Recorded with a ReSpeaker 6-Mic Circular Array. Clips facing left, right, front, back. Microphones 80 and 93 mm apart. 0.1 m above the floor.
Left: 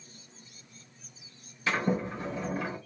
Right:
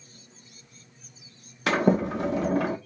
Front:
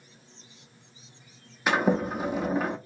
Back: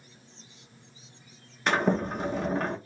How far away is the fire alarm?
No fire alarm in this recording.